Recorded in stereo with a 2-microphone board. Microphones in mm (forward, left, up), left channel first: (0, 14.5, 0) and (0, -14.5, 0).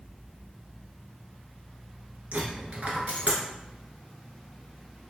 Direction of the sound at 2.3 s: 55° right (ahead or behind).